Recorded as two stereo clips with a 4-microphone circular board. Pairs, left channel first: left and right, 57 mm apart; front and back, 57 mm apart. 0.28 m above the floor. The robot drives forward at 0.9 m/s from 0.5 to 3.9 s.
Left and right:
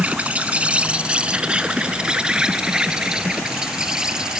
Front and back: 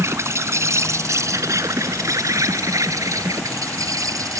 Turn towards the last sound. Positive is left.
turn(degrees=-165)